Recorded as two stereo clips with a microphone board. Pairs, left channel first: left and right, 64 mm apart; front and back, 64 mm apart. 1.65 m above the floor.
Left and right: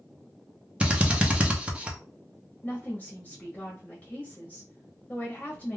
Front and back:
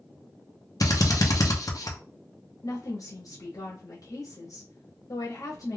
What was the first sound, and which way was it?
A drill, 20° right.